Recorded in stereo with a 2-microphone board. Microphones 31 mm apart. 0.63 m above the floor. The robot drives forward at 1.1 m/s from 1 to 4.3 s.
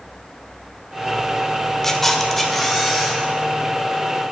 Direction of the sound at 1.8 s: 20° left (ahead or behind).